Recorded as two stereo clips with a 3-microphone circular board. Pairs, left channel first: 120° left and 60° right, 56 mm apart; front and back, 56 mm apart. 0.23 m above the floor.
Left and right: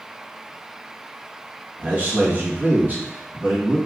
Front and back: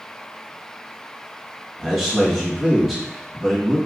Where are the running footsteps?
No running footsteps in this recording.